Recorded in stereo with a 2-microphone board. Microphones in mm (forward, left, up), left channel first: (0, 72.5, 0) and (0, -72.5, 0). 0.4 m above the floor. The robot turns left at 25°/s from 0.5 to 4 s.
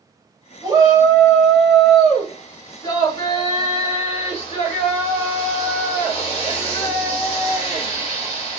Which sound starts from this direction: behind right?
A shout, at 0.6 s.